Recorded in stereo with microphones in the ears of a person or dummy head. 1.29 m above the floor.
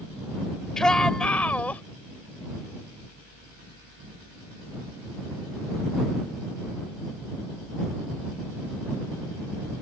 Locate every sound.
0.8 s a shout: 5° left (ahead or behind); by 1.8 s 10° left (ahead or behind)